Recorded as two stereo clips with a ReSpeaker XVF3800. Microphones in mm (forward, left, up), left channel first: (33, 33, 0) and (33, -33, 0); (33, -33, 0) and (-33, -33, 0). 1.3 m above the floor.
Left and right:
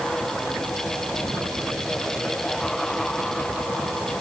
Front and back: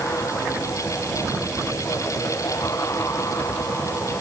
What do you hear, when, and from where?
Only background noise.